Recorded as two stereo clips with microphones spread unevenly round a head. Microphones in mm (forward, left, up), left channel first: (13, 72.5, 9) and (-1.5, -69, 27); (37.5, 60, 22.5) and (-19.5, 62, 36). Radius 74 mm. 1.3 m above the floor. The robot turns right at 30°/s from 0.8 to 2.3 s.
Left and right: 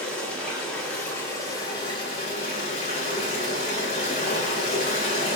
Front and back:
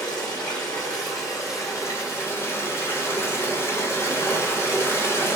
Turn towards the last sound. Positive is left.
turn(degrees=40)